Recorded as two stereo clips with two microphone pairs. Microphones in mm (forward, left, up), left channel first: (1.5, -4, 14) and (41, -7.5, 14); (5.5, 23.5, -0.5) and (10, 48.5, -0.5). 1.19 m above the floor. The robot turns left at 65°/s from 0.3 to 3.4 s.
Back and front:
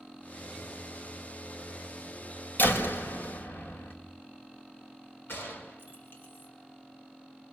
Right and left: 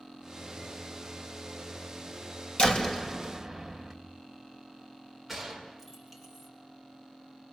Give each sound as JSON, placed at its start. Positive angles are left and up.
{"t": 2.6, "sound": "a door slam", "azimuth_deg": -150, "distance_m": 4.0}
{"t": 5.3, "sound": "a gunshot", "azimuth_deg": 165, "distance_m": 5.5}